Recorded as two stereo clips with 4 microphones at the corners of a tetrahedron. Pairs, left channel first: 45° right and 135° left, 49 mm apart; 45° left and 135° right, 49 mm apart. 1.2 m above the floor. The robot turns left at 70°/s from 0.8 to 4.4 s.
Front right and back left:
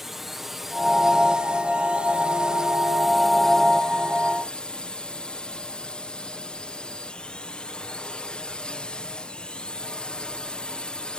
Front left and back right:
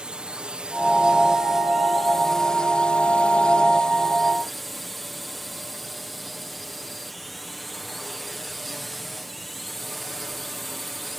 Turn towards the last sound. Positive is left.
turn(degrees=-40)